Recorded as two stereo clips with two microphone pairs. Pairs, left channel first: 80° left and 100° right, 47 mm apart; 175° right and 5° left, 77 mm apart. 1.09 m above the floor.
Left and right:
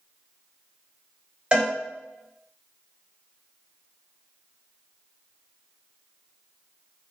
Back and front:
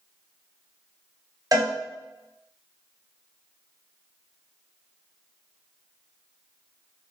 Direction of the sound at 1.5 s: 30° right.